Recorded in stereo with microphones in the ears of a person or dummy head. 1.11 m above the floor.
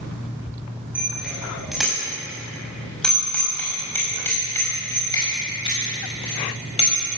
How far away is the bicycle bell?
About 5.5 m.